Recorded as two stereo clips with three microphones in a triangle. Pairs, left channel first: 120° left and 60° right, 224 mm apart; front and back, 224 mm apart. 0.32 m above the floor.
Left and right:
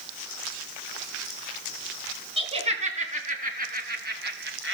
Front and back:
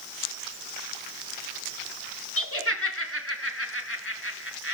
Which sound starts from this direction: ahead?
Laughter, at 2.4 s.